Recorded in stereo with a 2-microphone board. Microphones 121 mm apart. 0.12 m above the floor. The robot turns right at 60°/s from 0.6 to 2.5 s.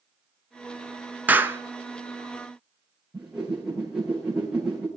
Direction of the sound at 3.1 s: 5° right (ahead or behind).